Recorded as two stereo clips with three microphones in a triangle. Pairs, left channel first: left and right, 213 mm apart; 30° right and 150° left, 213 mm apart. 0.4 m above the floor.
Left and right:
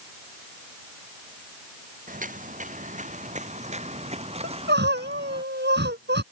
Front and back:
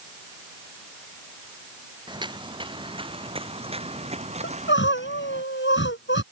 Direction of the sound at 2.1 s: 140° right.